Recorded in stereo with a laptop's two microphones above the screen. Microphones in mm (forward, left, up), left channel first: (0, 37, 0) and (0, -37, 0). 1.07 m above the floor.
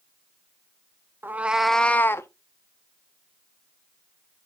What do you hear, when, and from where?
1.2 s a cat meowing: 30° right (ahead or behind), 0.5 m; by 2.3 s 35° left (ahead or behind), 0.6 m